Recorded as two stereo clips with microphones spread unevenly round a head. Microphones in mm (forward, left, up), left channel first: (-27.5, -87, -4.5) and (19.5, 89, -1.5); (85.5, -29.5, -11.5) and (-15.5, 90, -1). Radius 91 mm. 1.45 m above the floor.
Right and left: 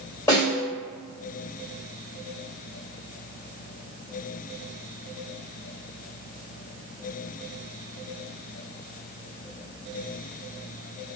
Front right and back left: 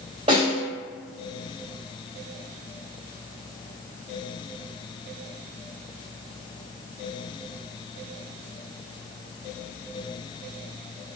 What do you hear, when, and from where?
0.3 s a snare drum: 175° right, 2.0 m